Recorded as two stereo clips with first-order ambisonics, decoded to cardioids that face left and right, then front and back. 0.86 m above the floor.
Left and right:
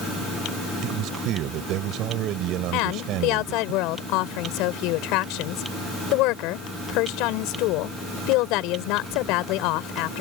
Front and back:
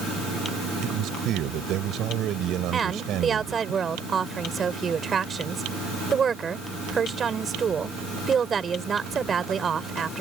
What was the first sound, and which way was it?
A man speaking, 130° right.